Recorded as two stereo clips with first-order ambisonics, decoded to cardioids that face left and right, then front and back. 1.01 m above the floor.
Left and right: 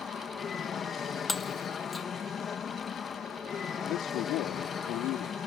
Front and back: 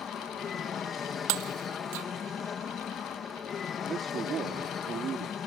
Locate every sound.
0.0 s an aircraft: 45° left
1.3 s breaking glass: 170° left
3.9 s a man speaking: 120° left